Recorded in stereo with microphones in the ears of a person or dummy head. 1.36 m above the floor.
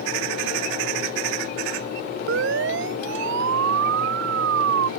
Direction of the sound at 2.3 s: 80° right.